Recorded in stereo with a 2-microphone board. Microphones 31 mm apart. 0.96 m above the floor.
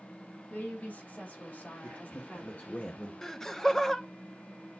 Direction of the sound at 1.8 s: 45° left (ahead or behind).